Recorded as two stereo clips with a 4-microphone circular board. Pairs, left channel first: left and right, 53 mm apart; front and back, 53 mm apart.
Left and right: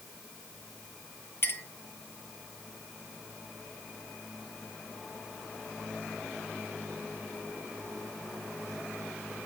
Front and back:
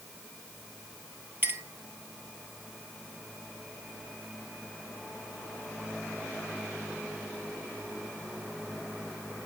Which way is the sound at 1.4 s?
130° left.